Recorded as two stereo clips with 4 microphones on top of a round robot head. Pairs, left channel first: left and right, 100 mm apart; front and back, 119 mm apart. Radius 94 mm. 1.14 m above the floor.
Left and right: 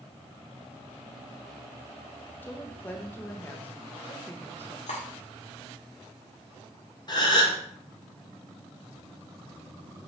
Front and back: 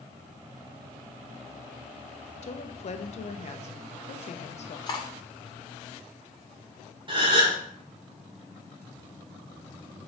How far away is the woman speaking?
About 0.9 m.